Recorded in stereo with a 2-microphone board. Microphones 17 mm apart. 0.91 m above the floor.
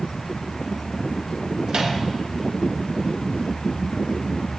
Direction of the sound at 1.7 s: 70° right (ahead or behind).